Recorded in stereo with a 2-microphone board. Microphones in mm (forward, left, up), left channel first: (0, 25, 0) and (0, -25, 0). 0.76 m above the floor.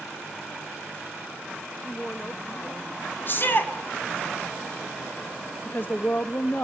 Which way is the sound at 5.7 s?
40° left (ahead or behind).